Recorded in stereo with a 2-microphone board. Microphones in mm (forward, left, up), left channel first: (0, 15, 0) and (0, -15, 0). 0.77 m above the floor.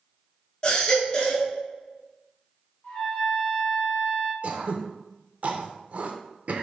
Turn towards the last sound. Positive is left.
turn(degrees=-55)  # may be behind; listen again after turning